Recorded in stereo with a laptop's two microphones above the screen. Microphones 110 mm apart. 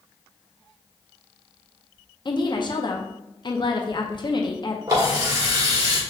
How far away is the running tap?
About 1.4 m.